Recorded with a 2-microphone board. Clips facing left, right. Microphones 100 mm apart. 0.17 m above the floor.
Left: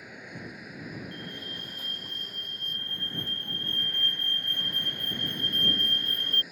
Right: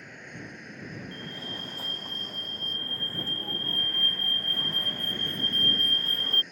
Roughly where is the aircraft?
Centre.